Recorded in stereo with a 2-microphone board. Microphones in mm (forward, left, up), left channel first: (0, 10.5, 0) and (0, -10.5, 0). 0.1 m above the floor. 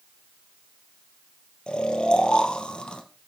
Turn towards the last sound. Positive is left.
turn(degrees=45)  # may be behind; listen again after turning